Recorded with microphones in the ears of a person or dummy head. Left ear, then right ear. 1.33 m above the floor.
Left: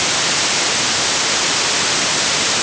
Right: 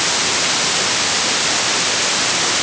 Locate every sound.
Only background noise.